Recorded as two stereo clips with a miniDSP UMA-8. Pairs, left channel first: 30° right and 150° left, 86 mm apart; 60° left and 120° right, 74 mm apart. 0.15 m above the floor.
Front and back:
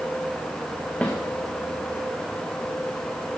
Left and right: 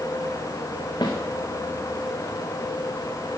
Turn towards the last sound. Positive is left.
turn(degrees=45)